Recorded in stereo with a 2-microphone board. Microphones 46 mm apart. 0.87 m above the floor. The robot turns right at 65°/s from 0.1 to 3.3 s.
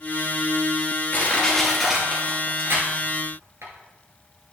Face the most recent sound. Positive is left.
turn(degrees=-75)  # may be behind; listen again after turning